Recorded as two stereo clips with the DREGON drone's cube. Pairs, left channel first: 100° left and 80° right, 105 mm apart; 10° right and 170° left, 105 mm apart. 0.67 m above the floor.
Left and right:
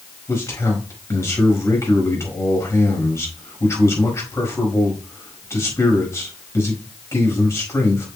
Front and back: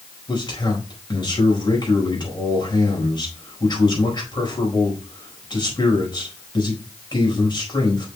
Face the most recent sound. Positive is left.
turn(degrees=35)